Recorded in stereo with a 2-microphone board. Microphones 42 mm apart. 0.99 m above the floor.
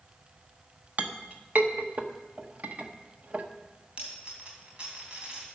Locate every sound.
1.0 s a clink: 40° right (ahead or behind), 0.9 m
4.0 s a dropped coin: 30° right (ahead or behind), 3 m